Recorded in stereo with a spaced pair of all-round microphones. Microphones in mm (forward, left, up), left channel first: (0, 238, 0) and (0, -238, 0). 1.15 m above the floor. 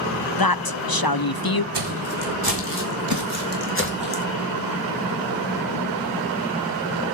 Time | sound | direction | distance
0.4 | a woman speaking | 50° left (ahead or behind) | 0.5 m
1.7 | footsteps | 60° right (ahead or behind) | 3 m